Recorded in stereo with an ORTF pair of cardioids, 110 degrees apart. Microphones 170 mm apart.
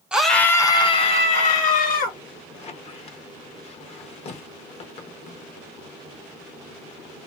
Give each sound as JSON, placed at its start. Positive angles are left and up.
{"t": 0.1, "sound": "a scream", "azimuth_deg": -5, "distance_m": 0.7}
{"t": 2.5, "sound": "a squeak", "azimuth_deg": 40, "distance_m": 1.0}